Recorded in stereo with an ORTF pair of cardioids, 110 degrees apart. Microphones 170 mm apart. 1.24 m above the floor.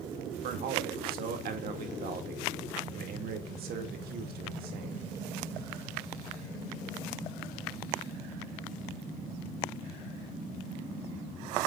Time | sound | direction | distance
0.4 | a man speaking | 65° right | 2.5 m